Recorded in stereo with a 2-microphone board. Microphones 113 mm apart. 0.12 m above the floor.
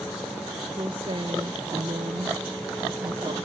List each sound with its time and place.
0.7 s a woman speaking: 45° right (ahead or behind); by 3.5 s 55° right (ahead or behind)